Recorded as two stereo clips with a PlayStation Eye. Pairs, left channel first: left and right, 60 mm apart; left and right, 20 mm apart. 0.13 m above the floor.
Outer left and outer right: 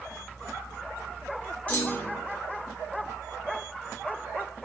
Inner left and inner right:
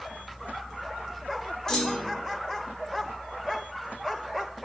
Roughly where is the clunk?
Left.